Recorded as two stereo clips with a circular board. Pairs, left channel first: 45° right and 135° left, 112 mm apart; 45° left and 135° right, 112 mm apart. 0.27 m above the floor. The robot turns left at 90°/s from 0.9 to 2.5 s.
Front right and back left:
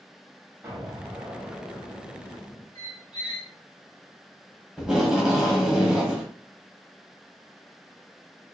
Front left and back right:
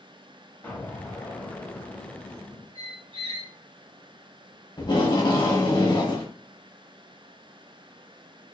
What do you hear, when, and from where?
0.6 s an explosion: 95° left, 1.1 m; by 2.6 s 50° right, 1.1 m
2.8 s a squeak: 95° right, 1.4 m
4.8 s tape being pulled: 50° left, 1.2 m